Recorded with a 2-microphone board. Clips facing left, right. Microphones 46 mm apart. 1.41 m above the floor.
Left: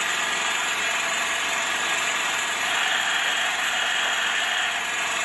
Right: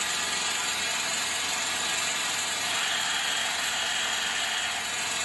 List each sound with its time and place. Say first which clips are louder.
0.0 s an engine running: left 6 dB; 40° left (ahead or behind), 0.9 m
2.6 s a camera shutter: left 6 dB; 45° left (ahead or behind), 1.2 m